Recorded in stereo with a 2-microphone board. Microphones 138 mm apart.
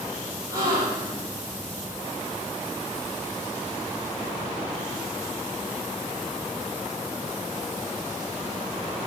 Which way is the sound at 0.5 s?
25° right (ahead or behind).